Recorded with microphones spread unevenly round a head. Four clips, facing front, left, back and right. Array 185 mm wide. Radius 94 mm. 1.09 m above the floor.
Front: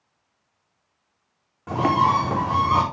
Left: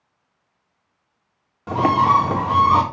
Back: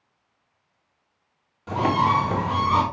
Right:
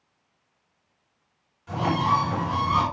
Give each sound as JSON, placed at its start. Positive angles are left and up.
{"t": 1.7, "sound": "a bird", "azimuth_deg": 70, "distance_m": 4.0}